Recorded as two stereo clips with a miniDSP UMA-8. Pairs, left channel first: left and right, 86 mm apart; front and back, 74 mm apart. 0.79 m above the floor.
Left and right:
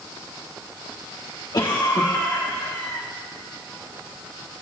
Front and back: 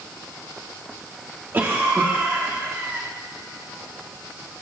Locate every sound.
1.5 s a cough: 125° left, 1.4 m